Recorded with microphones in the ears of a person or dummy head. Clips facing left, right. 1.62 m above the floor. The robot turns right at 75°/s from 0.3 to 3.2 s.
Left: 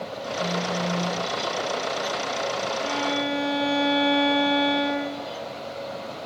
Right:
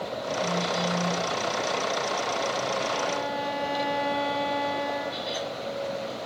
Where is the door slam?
I don't hear a door slam.